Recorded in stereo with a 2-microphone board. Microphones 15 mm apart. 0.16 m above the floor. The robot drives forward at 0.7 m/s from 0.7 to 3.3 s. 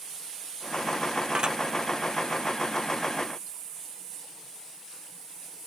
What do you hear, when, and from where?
1.4 s dishes clattering: 60° right (ahead or behind)